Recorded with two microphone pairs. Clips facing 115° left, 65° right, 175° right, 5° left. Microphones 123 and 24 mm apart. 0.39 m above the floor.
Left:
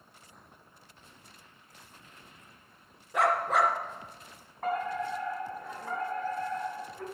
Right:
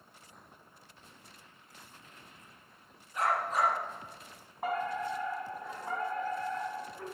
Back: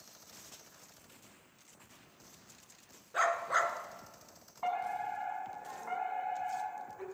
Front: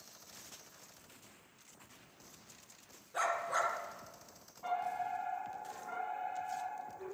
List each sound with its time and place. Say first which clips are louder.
3.1 s a dog barking: left 5 dB, back 4 dB; 120° left, 1.4 m
4.6 s a fire alarm: left 2 dB, back 2 dB; 145° right, 5 m